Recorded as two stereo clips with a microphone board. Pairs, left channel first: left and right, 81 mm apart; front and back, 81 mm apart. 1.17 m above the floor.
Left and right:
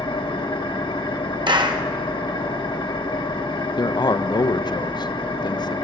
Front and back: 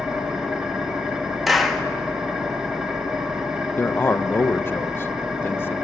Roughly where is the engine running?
Left.